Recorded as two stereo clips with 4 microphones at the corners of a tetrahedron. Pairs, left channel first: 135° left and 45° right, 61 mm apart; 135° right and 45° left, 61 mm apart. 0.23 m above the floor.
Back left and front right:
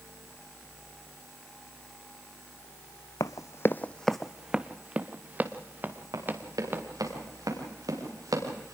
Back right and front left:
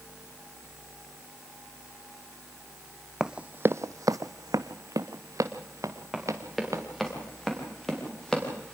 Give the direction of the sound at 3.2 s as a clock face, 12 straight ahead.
8 o'clock.